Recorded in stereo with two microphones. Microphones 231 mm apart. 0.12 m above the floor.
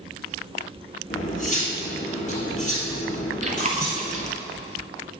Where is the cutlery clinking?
30° left (ahead or behind), 1.7 m.